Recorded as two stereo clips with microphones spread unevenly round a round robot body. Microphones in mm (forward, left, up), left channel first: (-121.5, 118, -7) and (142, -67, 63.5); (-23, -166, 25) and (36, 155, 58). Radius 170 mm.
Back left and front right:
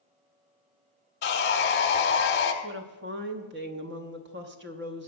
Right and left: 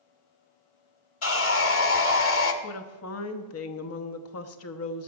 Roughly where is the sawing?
Behind right.